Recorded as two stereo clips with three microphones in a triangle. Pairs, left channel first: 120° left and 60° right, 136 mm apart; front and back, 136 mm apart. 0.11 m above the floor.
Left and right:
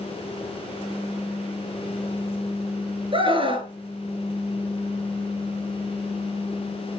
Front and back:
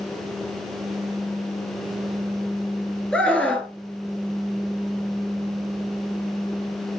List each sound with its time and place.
3.1 s a scream: 75° right, 2 m